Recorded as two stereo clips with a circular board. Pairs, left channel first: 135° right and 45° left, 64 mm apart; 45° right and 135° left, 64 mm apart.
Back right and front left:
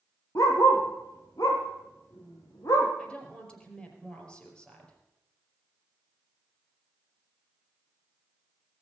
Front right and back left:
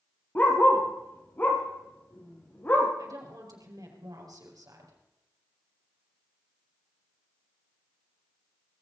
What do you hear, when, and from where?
0.3 s a dog barking: 105° right, 3 m
3.0 s a woman speaking: 150° left, 4.5 m